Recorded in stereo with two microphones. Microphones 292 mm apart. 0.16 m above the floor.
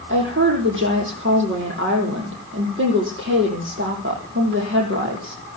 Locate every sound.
0.1 s a woman speaking: 45° right (ahead or behind), 7 m